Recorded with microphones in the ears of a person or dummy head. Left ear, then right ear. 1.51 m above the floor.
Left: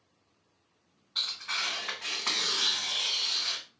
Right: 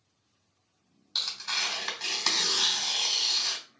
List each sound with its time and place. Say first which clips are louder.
1.1 s tearing paper: right 2 dB; 60° right (ahead or behind), 2.5 m